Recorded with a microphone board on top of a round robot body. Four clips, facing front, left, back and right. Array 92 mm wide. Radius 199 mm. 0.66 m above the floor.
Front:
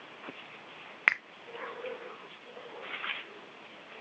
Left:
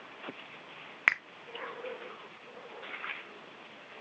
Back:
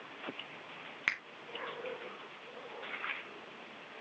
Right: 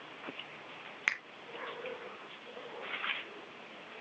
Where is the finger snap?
40° left, 0.6 m.